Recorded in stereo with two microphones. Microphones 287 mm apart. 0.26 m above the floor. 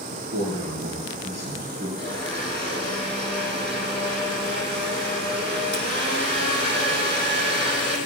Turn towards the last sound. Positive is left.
turn(degrees=-35)  # may be behind; listen again after turning